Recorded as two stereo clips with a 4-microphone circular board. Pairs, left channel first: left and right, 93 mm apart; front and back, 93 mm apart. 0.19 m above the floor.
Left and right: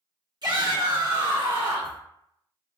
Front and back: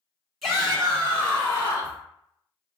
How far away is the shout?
About 2.0 m.